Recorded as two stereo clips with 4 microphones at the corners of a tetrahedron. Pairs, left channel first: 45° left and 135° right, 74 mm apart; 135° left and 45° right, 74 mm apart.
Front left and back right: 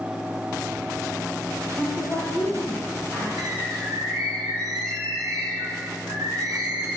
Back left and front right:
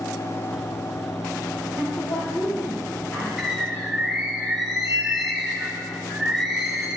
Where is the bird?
130° right, 3 m.